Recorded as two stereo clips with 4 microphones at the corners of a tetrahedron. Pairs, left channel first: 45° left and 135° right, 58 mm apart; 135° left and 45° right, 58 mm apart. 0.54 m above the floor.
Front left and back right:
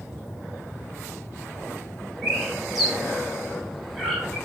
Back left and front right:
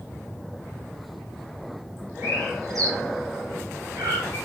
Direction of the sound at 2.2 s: 45° right.